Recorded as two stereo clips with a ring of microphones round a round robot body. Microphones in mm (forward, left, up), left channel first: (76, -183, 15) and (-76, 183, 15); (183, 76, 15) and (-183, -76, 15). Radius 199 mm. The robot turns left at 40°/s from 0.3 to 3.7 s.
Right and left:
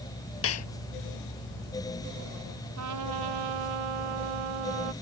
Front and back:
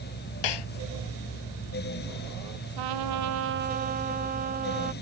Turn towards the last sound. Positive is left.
turn(degrees=130)